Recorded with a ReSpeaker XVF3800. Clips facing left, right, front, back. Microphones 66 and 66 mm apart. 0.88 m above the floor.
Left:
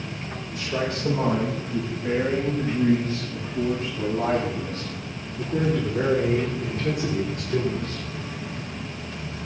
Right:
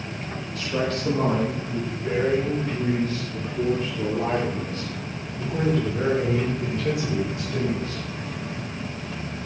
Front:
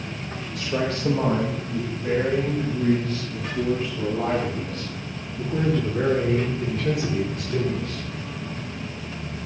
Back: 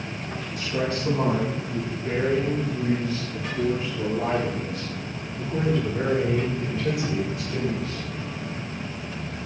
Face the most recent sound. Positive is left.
turn(degrees=40)